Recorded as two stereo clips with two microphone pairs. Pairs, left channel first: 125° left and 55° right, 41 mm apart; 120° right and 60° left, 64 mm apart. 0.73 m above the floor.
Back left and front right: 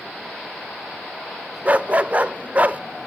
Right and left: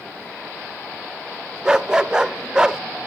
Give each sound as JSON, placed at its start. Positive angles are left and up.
{"t": 1.6, "sound": "a dog barking", "azimuth_deg": -10, "distance_m": 0.5}